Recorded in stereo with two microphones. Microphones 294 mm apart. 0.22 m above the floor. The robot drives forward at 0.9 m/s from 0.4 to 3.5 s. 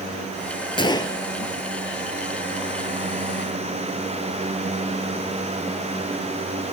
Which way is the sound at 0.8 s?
15° left (ahead or behind).